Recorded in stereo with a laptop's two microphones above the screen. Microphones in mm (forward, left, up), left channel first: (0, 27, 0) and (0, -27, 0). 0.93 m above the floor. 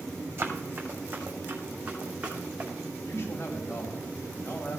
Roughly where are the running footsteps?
Right.